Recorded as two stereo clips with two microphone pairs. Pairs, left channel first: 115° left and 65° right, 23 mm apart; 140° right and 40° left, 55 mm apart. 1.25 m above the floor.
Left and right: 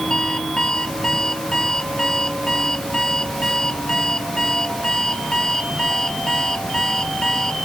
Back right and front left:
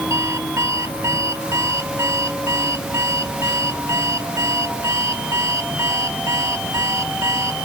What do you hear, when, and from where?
0.1 s an alarm clock: 50° left